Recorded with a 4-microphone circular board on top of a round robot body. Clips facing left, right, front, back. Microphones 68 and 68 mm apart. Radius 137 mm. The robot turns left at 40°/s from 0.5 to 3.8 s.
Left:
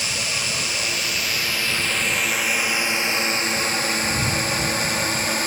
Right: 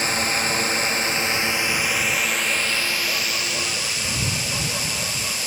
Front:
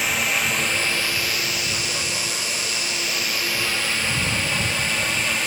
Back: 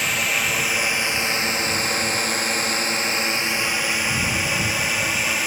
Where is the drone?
90° right; by 5.5 s 95° left.